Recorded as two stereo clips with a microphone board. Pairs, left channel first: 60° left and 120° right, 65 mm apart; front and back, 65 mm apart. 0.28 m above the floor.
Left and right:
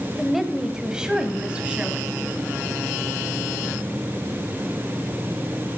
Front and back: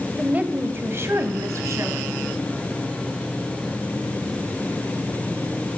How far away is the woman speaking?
About 1.2 m.